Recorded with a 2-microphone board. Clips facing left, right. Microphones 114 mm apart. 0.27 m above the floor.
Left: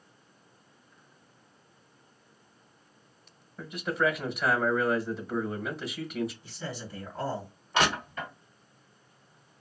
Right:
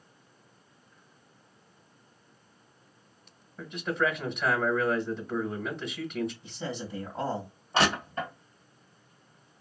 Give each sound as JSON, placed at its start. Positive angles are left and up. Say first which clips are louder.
{"t": 3.6, "sound": "a man speaking", "louder": "even", "side_deg": 5, "distance_m": 1.1}
{"t": 6.4, "sound": "a man speaking", "louder": "right 3 dB", "side_deg": -20, "distance_m": 2.0}
{"t": 7.7, "sound": "crushing", "louder": "right 1 dB", "side_deg": -35, "distance_m": 1.8}